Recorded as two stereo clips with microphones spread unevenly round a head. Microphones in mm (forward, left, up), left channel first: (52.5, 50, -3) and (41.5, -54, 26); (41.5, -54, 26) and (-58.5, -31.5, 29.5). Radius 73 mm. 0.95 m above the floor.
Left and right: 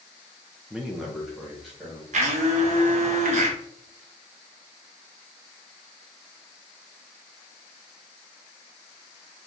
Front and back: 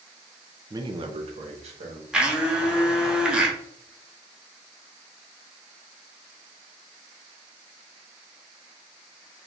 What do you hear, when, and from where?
0.7 s a man speaking: 160° left, 0.6 m; by 2.0 s 170° left, 2.0 m
2.1 s a blender: 110° right, 1.0 m